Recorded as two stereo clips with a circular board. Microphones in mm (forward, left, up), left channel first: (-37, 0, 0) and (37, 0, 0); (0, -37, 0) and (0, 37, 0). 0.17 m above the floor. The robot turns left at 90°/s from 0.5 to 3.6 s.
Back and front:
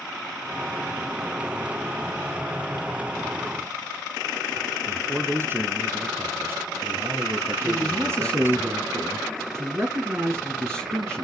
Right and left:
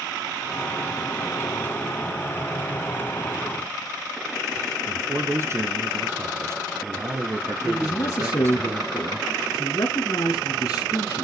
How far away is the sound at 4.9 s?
About 1.8 m.